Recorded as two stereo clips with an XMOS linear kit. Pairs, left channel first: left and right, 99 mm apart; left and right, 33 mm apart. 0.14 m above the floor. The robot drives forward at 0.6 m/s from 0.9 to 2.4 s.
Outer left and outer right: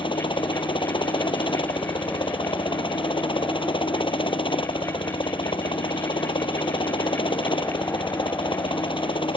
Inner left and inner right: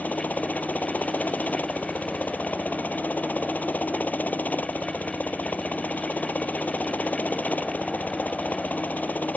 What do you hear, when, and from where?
0.0 s a helicopter: 55° left (ahead or behind); by 9.4 s 60° left (ahead or behind)